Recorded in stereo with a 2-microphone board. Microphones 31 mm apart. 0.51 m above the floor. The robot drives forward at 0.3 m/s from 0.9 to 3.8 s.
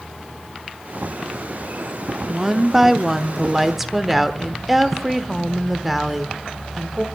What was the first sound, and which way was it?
A woman speaking, 5° right (ahead or behind).